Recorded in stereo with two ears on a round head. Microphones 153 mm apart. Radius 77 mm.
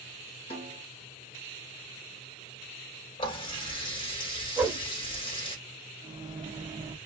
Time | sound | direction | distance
0.5 | a snare drum | 35° left (ahead or behind) | 1.6 m
3.2 | a running tap | 30° left (ahead or behind) | 1.3 m
4.6 | a whoosh | 10° right (ahead or behind) | 0.6 m
6.0 | a microwave | 25° right (ahead or behind) | 0.7 m